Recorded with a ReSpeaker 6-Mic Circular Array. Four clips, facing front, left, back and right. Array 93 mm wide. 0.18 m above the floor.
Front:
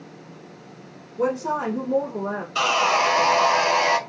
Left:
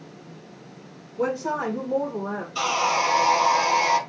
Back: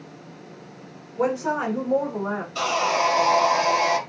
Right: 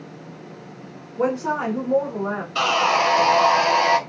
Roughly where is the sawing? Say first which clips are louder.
Right 4 dB, front 3 dB; ahead right.